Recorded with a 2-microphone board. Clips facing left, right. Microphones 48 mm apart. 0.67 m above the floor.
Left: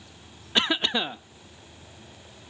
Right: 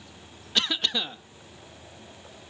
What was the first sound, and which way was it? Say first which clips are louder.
A cough: left 3 dB; 25° left (ahead or behind).